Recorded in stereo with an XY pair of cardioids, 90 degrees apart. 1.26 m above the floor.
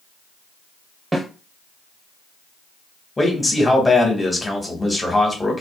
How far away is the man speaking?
About 1.3 m.